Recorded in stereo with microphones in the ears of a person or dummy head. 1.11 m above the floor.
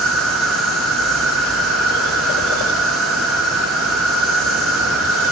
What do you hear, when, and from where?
0.0 s an insect: centre (ahead or behind), 0.7 m